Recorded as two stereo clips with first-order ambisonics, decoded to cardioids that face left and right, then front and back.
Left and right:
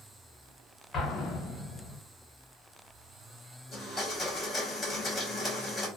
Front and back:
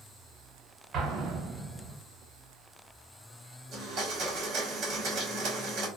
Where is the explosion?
140° left, 0.7 m.